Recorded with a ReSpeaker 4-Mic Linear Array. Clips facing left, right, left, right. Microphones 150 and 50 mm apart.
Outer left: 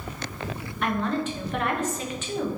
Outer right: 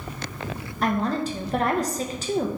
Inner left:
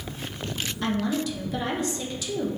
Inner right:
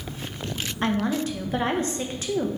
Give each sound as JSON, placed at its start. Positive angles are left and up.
{"t": 0.8, "sound": "a woman speaking", "side_deg": -35, "distance_m": 0.5}